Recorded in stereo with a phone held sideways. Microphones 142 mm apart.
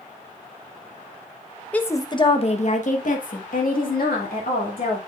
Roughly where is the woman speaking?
Centre.